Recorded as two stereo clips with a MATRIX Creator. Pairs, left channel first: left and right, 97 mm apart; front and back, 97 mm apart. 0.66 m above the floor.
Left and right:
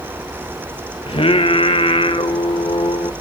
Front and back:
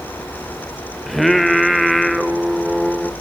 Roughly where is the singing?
Left.